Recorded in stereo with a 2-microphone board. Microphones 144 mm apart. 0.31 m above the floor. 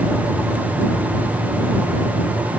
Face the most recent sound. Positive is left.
No sound to turn to.